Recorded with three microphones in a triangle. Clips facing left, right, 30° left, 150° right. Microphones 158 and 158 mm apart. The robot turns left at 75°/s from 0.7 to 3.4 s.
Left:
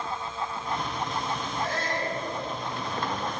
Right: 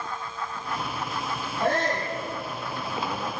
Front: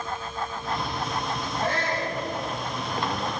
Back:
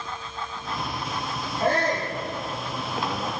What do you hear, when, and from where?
1.6 s a shout: 110° right, 8 m; by 2.1 s 145° right, 8 m